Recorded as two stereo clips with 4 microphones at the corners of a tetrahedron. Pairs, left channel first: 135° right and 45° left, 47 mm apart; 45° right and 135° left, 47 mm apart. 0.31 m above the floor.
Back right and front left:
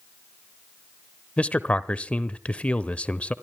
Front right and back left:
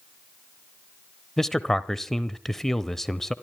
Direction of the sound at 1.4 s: 120° right.